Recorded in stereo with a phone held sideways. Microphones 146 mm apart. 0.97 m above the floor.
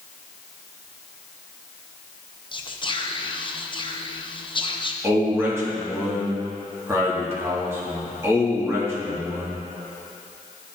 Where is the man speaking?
15° right (ahead or behind), 1.5 m.